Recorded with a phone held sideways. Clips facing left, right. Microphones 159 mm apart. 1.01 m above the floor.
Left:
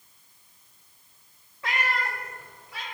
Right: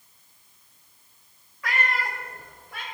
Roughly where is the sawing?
I don't hear sawing.